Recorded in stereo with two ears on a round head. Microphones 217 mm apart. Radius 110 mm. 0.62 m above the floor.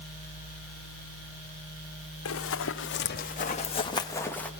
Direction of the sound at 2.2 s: 60° left (ahead or behind).